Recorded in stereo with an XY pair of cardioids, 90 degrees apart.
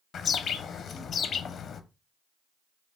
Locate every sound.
0.1 s a bird: 60° left, 0.7 m